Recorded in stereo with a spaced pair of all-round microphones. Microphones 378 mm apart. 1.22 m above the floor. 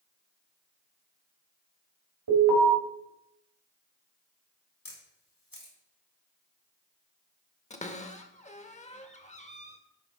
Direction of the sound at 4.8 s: 60° left (ahead or behind).